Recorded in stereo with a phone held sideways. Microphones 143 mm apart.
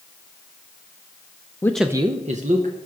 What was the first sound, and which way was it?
A man speaking, 20° left (ahead or behind).